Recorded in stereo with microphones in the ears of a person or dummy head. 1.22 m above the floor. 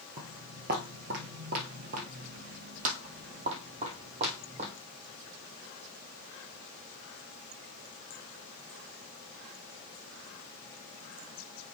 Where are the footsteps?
25° right (ahead or behind), 1.6 m; by 4.7 s 35° right (ahead or behind), 3.5 m.